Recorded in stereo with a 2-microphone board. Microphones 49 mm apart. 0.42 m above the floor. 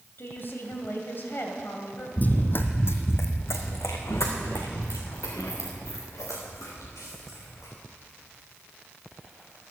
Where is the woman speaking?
50° left (ahead or behind), 2.5 m.